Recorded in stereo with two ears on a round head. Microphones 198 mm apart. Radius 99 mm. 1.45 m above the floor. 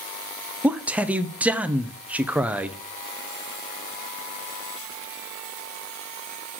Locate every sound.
0.6 s a man speaking: 5° right (ahead or behind), 0.5 m